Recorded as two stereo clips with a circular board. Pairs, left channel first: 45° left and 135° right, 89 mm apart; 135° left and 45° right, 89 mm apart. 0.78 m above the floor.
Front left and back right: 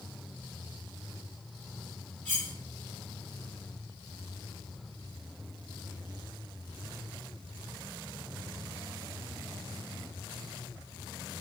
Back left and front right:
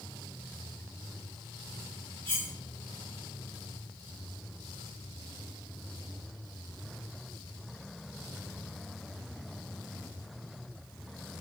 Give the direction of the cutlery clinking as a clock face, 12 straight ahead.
1 o'clock.